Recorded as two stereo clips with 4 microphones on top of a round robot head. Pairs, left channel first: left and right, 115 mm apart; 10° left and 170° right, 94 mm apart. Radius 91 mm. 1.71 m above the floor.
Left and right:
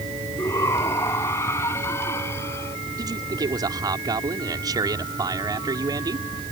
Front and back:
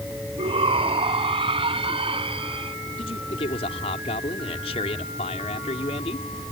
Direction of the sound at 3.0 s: 35° right.